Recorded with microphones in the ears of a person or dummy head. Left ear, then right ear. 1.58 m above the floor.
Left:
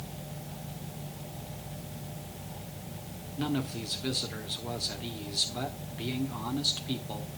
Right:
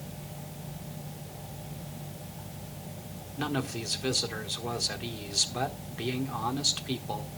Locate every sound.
3.4 s a man speaking: 30° right (ahead or behind), 1.5 m